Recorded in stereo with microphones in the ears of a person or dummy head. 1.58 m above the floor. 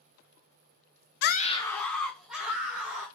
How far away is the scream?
About 0.6 m.